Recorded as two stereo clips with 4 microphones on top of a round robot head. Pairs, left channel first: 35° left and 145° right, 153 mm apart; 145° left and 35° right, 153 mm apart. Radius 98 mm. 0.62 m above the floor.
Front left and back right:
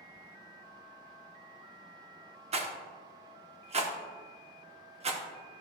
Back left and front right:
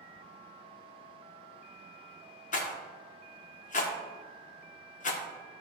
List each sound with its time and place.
2.5 s a rattle: 175° left, 1.0 m